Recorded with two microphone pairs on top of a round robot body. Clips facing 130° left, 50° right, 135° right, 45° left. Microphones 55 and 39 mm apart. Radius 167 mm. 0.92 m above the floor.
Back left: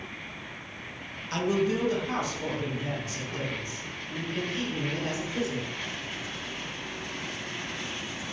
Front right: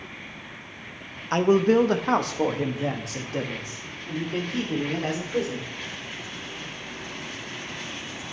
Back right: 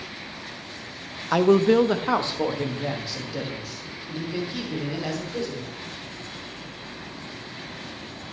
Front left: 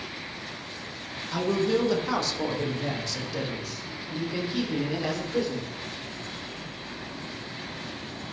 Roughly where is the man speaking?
Right.